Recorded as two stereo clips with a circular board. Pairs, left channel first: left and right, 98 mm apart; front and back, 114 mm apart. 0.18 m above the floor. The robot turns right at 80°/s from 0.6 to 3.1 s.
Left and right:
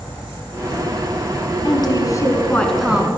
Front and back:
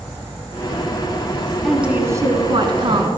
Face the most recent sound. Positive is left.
turn(degrees=-155)